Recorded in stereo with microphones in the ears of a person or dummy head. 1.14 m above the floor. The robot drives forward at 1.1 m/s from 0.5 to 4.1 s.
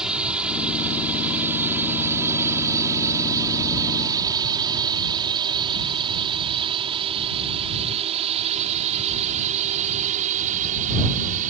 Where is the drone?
5° right (ahead or behind); by 11.5 s 45° right (ahead or behind).